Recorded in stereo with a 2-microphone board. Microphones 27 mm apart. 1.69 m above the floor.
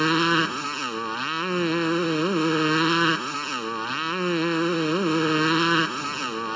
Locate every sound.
0.0 s a motorcycle: 5° left (ahead or behind)